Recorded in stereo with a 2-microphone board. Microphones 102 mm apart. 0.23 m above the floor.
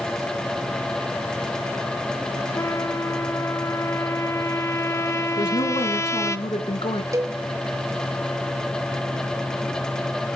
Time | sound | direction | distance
2.5 | a trumpet | 30° left (ahead or behind) | 0.9 m
5.4 | a woman speaking | 55° left (ahead or behind) | 2.5 m
7.1 | a cowbell | 30° right (ahead or behind) | 1.1 m